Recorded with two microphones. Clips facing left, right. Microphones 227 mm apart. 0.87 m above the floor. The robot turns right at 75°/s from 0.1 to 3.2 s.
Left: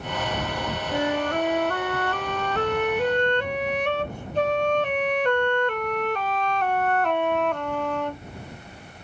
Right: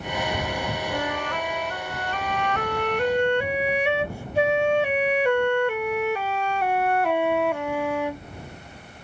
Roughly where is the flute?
Ahead.